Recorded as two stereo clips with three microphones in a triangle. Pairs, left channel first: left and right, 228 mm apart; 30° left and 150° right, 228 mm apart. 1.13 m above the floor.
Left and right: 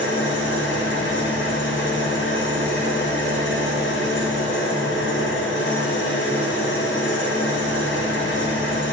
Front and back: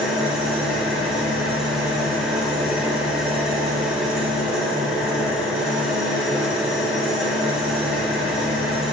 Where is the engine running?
120° left, 1.1 m.